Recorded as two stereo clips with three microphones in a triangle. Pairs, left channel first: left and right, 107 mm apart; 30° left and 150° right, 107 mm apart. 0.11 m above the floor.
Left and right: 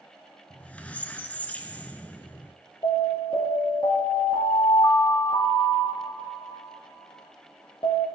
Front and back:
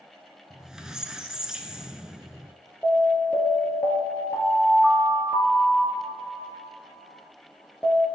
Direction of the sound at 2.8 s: 105° left.